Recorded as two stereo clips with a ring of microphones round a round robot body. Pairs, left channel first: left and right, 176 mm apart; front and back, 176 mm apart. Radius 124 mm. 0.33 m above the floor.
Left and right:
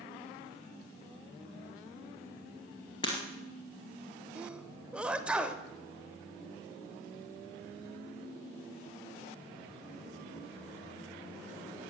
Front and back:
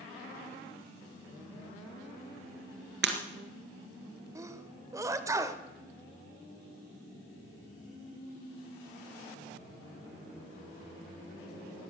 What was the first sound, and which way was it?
Breaking glass, 165° left.